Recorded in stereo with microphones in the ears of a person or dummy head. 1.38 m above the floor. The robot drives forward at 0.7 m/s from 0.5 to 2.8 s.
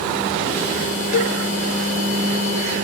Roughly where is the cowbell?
Left.